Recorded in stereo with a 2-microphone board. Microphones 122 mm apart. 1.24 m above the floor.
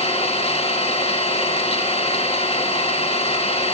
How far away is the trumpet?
No trumpet in this recording.